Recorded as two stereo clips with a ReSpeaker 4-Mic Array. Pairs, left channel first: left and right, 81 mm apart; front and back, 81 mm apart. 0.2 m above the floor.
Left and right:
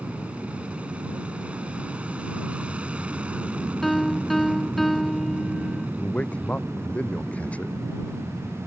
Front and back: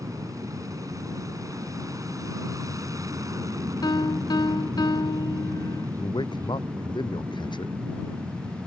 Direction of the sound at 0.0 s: 160° right.